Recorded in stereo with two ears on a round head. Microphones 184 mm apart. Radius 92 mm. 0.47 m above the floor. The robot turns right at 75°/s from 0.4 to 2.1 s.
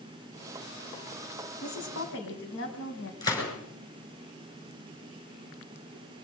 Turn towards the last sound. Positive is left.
turn(degrees=20)  # may be behind; listen again after turning